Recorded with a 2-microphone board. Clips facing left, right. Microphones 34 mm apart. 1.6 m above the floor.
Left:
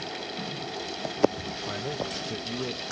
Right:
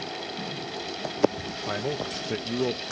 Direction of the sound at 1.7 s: 25° right (ahead or behind).